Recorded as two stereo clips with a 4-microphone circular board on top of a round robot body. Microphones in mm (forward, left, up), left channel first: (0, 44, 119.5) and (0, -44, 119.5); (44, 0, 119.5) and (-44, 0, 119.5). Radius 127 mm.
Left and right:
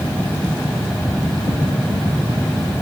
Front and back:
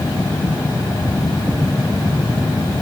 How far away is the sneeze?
No sneeze in this recording.